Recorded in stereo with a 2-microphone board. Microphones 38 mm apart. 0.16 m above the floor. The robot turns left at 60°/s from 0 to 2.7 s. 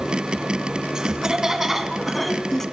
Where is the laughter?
20° right (ahead or behind), 1.6 m; by 2.6 s 10° left (ahead or behind), 1.6 m.